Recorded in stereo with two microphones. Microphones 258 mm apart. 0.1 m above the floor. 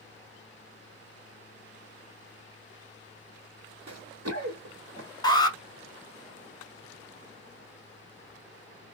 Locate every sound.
3.9 s running footsteps: 85° right, 0.7 m; by 5.1 s 50° right (ahead or behind), 2 m
5.2 s an alarm: 15° left (ahead or behind), 0.8 m